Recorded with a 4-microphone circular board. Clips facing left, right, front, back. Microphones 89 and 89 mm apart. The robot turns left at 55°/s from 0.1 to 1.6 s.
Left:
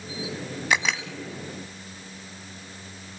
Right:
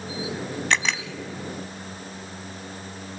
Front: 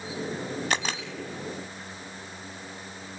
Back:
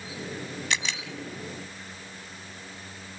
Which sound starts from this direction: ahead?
A camera shutter, at 0.7 s.